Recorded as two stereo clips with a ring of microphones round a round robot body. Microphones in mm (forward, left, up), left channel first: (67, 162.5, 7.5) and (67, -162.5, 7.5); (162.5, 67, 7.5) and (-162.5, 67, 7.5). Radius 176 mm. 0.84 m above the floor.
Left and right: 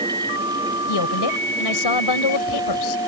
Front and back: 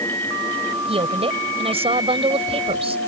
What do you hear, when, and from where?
0.9 s a woman speaking: 110° left